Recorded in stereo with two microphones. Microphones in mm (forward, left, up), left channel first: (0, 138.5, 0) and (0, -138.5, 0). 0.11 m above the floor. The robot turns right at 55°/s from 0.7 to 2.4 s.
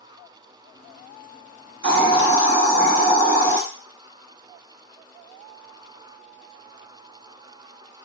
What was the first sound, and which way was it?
A hiss, 95° left.